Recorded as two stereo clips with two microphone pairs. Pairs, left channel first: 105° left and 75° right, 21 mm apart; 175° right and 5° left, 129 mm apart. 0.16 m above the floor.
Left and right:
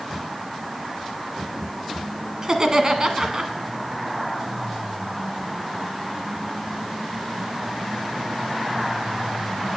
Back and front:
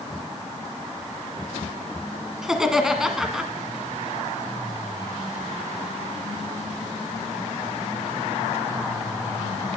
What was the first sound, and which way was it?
Laughter, 75° right.